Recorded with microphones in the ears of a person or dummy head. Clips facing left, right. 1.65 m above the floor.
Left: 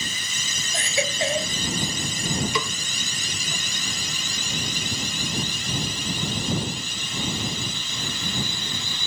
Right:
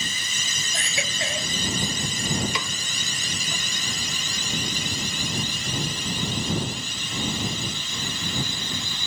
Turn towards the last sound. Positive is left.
turn(degrees=90)